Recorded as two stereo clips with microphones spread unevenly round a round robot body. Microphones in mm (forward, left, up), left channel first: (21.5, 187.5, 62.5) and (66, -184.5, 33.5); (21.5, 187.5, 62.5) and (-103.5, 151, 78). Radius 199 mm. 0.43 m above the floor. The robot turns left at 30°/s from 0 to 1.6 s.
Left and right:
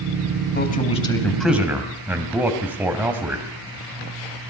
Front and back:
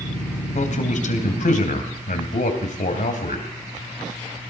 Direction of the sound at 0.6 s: 35° left.